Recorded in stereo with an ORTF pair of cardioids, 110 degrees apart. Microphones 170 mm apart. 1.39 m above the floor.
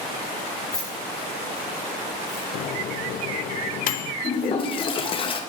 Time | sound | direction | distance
0.7 | keys jangling | 5° left | 2.5 m
2.5 | a microwave | 55° left | 0.5 m
4.2 | a toilet flushing | 30° left | 0.7 m